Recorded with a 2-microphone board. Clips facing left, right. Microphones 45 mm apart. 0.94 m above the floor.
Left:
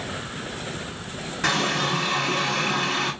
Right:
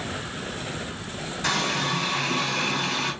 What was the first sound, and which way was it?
A running tap, 85° left.